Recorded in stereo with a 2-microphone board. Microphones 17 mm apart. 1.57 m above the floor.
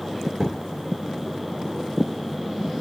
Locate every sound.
0.4 s a thud: 15° right (ahead or behind), 3.5 m